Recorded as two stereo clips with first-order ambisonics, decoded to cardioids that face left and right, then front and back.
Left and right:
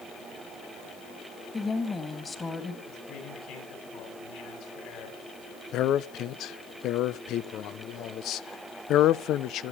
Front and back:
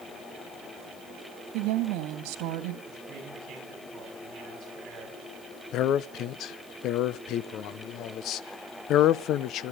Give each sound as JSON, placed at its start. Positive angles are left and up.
{"t": 1.5, "sound": "a woman speaking", "azimuth_deg": 170, "distance_m": 1.9}
{"t": 2.9, "sound": "a man speaking", "azimuth_deg": 120, "distance_m": 7.5}
{"t": 5.7, "sound": "a man speaking", "azimuth_deg": 45, "distance_m": 0.7}